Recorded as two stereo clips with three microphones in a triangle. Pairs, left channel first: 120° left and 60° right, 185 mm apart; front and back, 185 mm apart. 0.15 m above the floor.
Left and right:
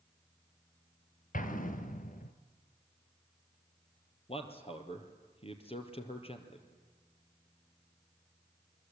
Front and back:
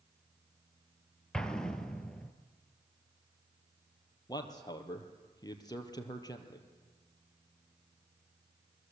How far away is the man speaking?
About 3 m.